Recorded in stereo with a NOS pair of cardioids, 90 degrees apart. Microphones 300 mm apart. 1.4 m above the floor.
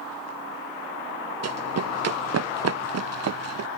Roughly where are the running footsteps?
Ahead right.